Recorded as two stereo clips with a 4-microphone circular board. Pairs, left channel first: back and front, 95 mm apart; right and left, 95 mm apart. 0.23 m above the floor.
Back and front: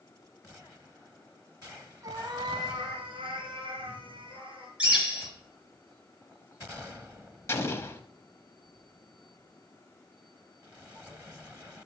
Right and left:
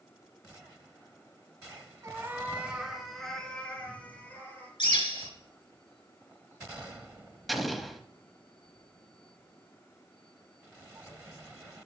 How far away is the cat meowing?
About 1.1 m.